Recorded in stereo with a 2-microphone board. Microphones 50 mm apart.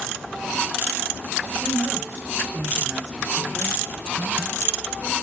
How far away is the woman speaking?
About 1.5 m.